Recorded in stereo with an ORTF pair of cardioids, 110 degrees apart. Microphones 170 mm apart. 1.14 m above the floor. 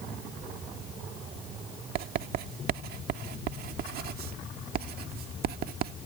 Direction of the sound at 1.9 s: 65° right.